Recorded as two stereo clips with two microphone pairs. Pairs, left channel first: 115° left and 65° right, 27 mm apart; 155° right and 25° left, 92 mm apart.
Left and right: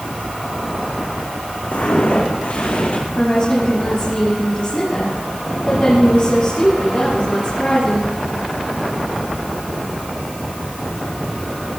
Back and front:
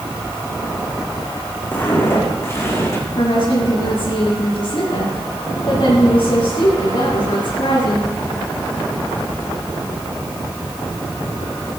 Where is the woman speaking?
170° left, 7.5 m.